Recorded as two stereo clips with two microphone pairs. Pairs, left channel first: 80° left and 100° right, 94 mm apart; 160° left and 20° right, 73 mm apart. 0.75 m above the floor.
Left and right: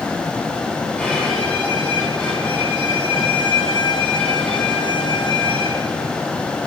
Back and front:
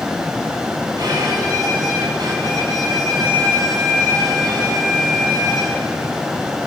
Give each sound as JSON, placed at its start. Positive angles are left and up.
{"t": 1.0, "sound": "a violin", "azimuth_deg": 5, "distance_m": 8.0}